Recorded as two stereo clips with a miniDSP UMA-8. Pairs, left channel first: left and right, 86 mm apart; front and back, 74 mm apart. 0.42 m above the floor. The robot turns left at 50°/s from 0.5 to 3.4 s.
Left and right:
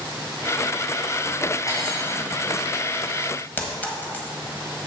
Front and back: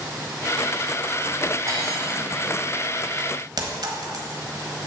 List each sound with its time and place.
1.7 s cutlery clinking: 140° left, 2.0 m; by 2.3 s 105° left, 2.0 m
3.6 s a clink: 160° left, 1.4 m